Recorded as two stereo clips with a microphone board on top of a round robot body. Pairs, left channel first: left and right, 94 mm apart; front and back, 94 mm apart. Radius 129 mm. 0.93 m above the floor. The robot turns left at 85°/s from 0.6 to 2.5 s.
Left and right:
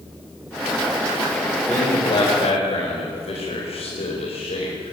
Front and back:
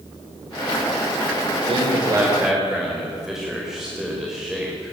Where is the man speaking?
175° left, 4.5 m; by 4.9 s 95° left, 4.5 m.